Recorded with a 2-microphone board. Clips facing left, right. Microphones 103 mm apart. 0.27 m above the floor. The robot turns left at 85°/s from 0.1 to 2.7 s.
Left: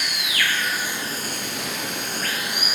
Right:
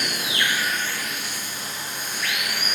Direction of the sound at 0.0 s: 130° right.